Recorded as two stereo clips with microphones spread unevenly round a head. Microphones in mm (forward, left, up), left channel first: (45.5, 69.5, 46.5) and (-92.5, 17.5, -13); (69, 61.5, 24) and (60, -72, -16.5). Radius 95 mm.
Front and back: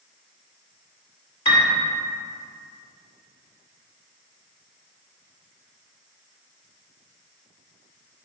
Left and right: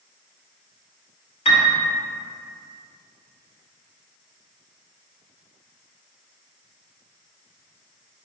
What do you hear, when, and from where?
1.4 s a piano: 60° left, 1.9 m